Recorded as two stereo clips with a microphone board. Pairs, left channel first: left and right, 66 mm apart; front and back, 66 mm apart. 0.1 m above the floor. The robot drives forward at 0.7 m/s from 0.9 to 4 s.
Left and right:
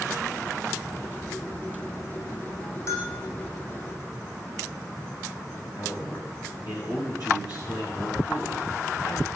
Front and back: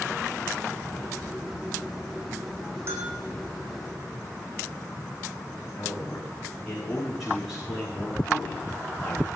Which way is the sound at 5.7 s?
95° left.